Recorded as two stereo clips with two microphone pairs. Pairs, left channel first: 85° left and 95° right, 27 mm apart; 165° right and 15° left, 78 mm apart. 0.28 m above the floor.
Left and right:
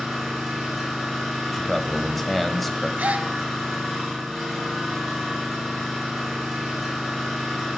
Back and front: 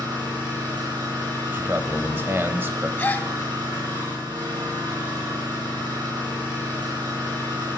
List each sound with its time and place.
0.0 s an engine running: 5° right, 5 m
1.5 s a man speaking: 10° left, 1.0 m
3.0 s a gasp: 105° right, 0.6 m